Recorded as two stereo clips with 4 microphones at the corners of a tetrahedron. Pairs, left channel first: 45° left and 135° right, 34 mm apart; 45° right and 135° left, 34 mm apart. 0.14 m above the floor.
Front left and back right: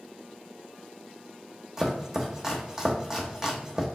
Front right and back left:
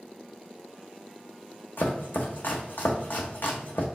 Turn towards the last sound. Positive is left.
turn(degrees=-65)